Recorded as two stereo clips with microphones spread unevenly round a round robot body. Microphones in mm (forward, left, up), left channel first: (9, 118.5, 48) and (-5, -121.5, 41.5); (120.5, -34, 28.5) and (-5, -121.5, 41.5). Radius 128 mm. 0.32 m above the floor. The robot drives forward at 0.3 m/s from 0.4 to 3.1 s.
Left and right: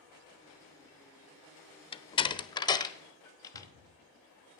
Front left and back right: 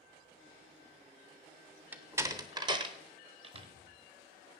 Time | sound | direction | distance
1.9 | a door slam | 135° left | 0.6 m
3.5 | a cupboard door | 110° right | 1.9 m